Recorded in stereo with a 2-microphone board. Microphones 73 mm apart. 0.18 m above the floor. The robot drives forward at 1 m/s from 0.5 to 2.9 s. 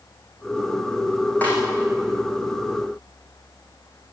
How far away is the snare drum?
About 9.5 m.